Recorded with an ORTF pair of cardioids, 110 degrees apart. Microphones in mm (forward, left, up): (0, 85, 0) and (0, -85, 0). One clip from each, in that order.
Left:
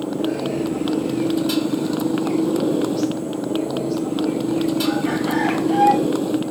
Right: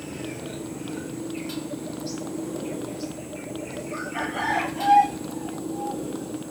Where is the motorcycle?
65° left.